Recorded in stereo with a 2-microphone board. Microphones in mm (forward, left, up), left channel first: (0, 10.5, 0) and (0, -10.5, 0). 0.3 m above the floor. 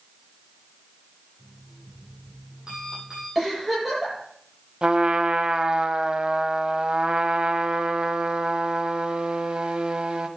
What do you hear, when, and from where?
1.4 s an alarm clock: 30° right (ahead or behind), 6.5 m
3.4 s a giggle: 15° right (ahead or behind), 8.5 m
4.8 s a trumpet: 50° right (ahead or behind), 1.1 m